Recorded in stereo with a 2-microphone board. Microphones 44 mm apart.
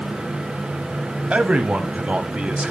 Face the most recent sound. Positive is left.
turn(degrees=-30)  # may be behind; listen again after turning